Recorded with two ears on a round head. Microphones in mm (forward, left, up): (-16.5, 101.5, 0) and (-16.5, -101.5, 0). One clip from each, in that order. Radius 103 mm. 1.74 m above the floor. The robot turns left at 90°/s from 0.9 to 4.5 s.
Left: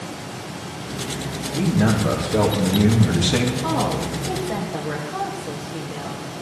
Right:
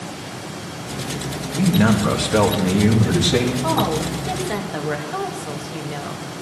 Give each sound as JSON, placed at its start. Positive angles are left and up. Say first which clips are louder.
{"t": 1.5, "sound": "a man speaking", "louder": "right 3 dB", "azimuth_deg": -30, "distance_m": 3.0}
{"t": 3.6, "sound": "a woman speaking", "louder": "right 2 dB", "azimuth_deg": 5, "distance_m": 3.0}